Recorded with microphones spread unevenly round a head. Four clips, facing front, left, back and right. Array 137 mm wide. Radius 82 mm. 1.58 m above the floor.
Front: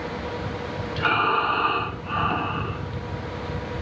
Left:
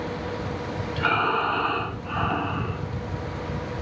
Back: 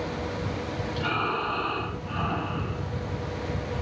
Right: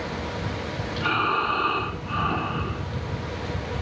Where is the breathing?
30° left, 7.5 m.